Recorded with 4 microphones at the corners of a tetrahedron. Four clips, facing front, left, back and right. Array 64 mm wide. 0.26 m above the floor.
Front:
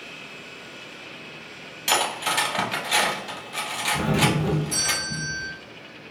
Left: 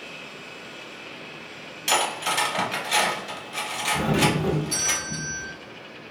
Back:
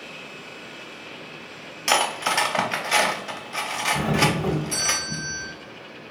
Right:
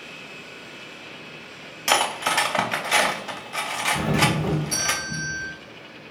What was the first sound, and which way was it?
Cutlery clinking, 125° right.